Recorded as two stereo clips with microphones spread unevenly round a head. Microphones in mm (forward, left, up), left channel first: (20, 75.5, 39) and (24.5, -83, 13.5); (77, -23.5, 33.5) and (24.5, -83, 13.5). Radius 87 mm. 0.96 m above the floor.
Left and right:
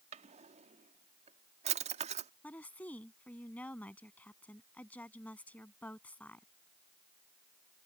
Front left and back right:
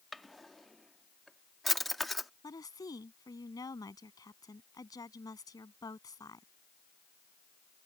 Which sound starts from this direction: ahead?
A woman speaking, at 2.4 s.